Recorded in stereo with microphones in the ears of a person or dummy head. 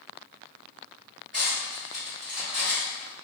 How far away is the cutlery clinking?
About 2.0 m.